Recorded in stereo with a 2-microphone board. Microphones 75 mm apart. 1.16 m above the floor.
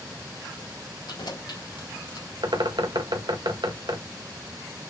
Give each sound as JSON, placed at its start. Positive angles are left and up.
{"t": 1.1, "sound": "keys jangling", "side_deg": 75, "distance_m": 2.5}
{"t": 2.4, "sound": "a bird", "side_deg": -80, "distance_m": 1.5}